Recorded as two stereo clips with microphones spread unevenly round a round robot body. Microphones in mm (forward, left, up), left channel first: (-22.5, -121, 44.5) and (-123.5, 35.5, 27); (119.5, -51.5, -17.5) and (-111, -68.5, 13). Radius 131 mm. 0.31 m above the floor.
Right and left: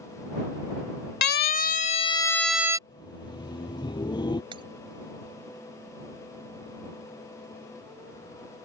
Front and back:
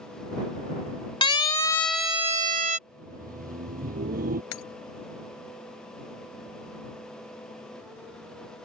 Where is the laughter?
125° right.